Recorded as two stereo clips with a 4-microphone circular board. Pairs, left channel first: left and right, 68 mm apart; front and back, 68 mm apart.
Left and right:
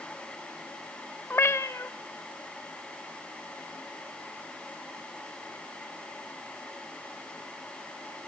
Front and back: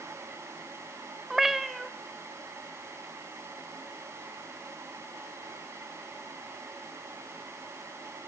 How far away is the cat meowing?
About 0.8 m.